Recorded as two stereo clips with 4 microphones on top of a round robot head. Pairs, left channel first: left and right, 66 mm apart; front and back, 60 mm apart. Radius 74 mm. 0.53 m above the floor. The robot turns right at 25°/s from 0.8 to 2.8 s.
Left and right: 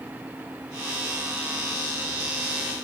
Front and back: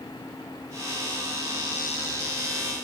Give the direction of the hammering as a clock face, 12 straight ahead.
No hammering in this recording.